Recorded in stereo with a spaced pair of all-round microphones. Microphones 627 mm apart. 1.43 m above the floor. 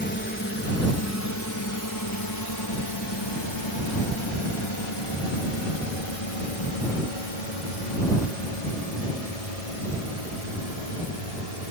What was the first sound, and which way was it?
A drone, 15° left (ahead or behind).